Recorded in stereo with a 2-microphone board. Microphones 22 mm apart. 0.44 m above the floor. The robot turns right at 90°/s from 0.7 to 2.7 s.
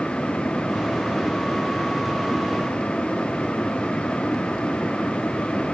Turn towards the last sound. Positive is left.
No sound to turn to.